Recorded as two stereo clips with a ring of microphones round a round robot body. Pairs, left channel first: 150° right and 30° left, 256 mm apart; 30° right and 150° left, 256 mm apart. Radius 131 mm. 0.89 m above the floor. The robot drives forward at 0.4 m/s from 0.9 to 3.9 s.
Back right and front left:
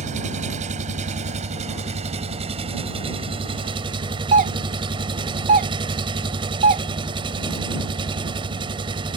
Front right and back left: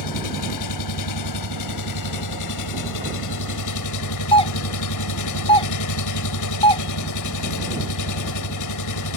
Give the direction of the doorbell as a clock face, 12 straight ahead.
11 o'clock.